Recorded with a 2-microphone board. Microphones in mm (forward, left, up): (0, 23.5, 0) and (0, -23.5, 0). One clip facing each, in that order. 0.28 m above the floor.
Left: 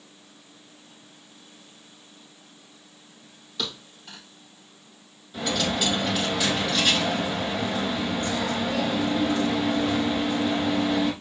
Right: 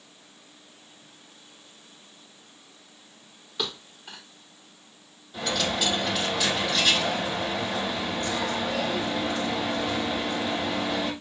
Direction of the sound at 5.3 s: Centre (ahead or behind).